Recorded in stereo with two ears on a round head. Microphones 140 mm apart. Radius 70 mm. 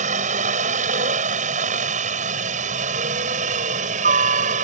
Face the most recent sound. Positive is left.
turn(degrees=-50)  # may be behind; listen again after turning